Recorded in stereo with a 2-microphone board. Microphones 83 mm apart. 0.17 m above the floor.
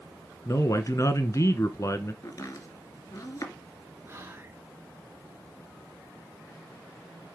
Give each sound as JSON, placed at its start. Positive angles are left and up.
{"t": 0.5, "sound": "a man speaking", "side_deg": 40, "distance_m": 1.7}
{"t": 2.2, "sound": "chopping", "side_deg": 40, "distance_m": 2.5}
{"t": 4.0, "sound": "whispering", "side_deg": -30, "distance_m": 2.5}